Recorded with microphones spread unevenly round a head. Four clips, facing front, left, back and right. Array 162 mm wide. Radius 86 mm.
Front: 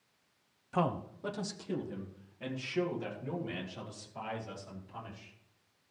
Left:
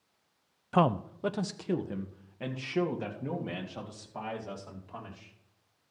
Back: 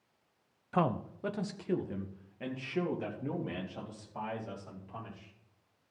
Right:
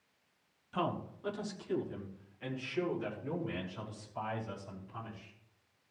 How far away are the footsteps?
No footsteps in this recording.